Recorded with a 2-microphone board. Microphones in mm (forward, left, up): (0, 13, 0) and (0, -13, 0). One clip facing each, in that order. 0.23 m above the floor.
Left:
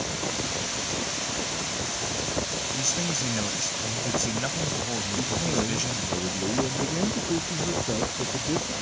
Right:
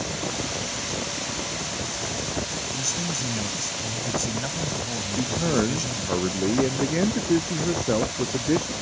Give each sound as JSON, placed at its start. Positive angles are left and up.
{"t": 2.8, "sound": "a man speaking", "side_deg": 15}
{"t": 5.2, "sound": "a man speaking", "side_deg": -30}